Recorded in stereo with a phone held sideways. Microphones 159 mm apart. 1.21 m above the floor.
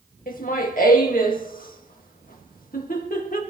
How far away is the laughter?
About 2 m.